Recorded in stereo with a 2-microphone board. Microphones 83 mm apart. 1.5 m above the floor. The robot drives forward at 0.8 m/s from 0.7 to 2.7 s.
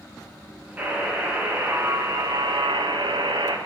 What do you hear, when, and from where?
0.8 s a buzzer: 20° right (ahead or behind), 1.8 m; by 3.6 s 75° right (ahead or behind), 0.7 m